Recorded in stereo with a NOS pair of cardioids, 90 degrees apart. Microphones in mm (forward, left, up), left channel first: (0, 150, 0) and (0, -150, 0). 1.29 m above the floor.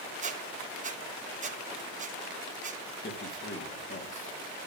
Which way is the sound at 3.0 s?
40° left.